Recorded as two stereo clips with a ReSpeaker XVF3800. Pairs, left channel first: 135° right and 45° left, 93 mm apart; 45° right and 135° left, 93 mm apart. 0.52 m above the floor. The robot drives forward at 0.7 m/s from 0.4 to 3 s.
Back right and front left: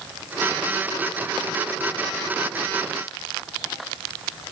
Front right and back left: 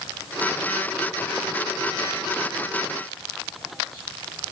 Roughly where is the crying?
No crying in this recording.